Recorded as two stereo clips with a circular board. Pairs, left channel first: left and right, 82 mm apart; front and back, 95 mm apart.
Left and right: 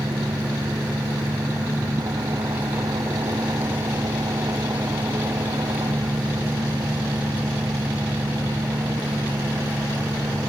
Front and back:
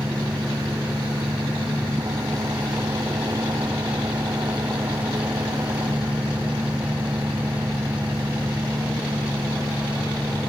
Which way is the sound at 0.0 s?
125° right.